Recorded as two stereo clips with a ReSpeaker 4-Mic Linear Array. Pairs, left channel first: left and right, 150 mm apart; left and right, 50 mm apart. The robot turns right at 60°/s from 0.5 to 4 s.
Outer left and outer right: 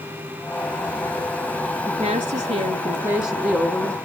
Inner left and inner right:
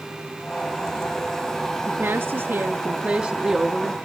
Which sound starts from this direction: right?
A woman speaking, at 1.9 s.